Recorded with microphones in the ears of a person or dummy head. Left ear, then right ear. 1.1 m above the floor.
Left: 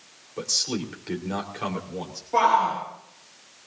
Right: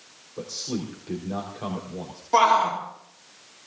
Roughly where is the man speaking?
Left.